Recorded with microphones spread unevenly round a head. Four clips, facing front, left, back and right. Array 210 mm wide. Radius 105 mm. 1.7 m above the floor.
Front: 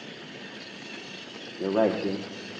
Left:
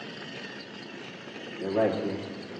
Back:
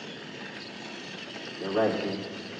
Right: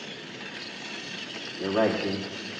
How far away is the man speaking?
About 1.3 m.